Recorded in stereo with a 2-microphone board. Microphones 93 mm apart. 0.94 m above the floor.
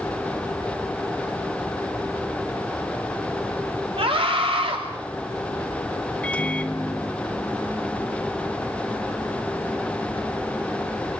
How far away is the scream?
About 2.5 m.